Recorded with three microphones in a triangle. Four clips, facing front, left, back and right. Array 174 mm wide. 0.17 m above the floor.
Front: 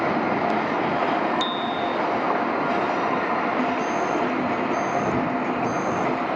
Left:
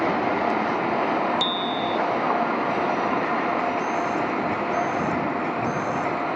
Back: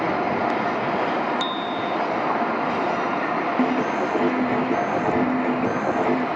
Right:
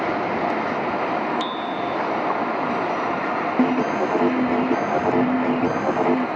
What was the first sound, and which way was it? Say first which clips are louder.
A bicycle bell: even, front 1 dB; 90° left.